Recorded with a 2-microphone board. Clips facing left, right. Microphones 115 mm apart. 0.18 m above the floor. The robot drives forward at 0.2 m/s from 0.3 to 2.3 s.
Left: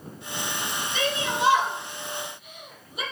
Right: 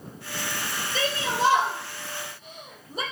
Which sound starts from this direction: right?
A shout, at 0.9 s.